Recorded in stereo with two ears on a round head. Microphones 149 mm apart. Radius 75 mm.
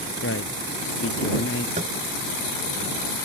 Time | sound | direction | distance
0.2 | a man speaking | 85° left | ?
1.8 | tapping | 45° right (ahead or behind) | ?